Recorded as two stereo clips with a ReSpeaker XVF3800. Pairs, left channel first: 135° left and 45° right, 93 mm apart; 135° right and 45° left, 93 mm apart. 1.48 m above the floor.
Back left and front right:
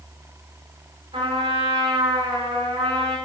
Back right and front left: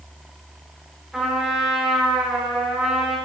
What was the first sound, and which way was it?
A trumpet, 45° right.